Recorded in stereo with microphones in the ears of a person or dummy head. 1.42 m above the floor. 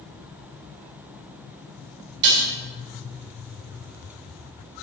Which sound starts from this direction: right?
Dishes clattering, at 2.2 s.